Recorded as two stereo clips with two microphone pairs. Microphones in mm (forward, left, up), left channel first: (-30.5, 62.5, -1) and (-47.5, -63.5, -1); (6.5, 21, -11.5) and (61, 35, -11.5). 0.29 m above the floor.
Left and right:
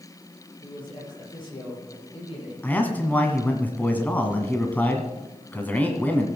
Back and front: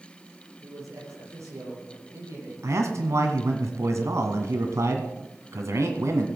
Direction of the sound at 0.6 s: 30° left.